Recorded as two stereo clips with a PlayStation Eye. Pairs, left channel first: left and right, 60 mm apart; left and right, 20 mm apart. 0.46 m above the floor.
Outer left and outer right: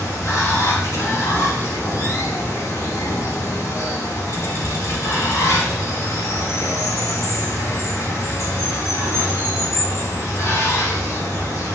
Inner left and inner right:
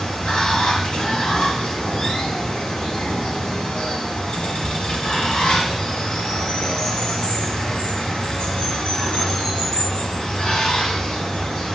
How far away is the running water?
About 2 m.